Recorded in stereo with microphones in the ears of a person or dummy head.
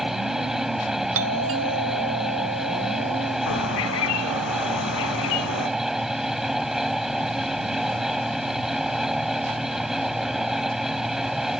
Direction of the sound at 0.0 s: 5° right (ahead or behind).